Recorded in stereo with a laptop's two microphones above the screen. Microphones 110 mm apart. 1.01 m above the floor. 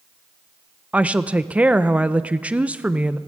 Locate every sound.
0.9 s a woman speaking: 10° right (ahead or behind), 0.7 m